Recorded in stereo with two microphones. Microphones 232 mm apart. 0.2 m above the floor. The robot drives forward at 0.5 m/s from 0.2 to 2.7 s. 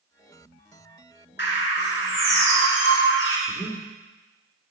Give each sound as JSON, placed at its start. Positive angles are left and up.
{"t": 1.4, "sound": "a bird", "side_deg": 45, "distance_m": 2.0}
{"t": 3.5, "sound": "breathing", "side_deg": 5, "distance_m": 2.0}